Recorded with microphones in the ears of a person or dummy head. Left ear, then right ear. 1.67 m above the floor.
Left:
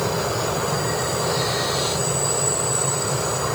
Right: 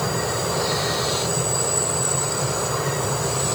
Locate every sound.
Only background noise.